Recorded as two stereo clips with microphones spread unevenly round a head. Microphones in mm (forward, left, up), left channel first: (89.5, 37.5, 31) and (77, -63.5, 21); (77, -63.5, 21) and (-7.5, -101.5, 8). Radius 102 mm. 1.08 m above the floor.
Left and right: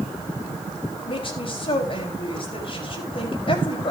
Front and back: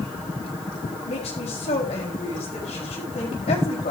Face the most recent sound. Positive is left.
turn(degrees=50)